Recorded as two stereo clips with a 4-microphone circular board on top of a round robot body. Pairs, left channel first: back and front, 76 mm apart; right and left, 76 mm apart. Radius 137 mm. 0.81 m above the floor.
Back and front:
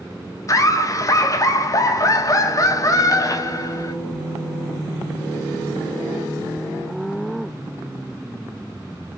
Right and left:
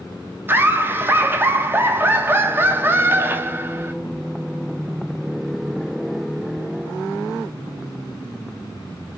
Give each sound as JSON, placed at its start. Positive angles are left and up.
{"t": 0.5, "sound": "laughter", "azimuth_deg": 145, "distance_m": 0.8}